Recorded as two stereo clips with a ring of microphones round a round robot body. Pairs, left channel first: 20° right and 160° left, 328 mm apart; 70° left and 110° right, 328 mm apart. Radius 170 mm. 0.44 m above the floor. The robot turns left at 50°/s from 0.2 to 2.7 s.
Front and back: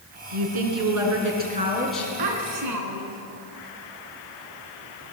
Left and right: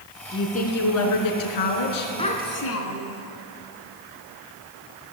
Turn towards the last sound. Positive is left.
turn(degrees=115)